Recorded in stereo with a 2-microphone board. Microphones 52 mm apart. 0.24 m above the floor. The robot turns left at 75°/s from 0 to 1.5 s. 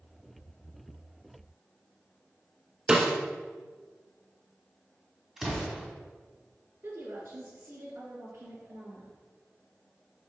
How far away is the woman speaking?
About 3 m.